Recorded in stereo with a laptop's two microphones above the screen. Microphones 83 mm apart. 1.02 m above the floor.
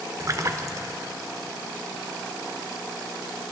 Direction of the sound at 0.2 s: 40° right (ahead or behind).